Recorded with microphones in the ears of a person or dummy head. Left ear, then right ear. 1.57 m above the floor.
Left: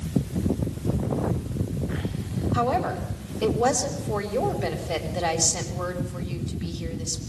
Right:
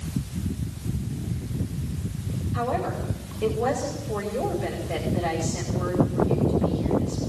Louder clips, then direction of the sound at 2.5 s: Left 3 dB; 90° left.